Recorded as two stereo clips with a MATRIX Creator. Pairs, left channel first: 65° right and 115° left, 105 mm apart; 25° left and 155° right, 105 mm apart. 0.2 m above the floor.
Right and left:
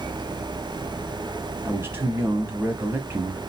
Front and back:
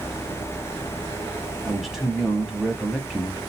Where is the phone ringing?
No phone ringing in this recording.